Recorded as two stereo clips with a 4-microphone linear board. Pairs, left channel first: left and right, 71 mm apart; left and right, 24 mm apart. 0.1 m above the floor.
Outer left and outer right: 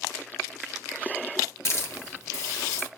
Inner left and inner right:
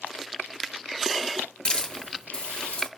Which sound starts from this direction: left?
A hiss, at 1.6 s.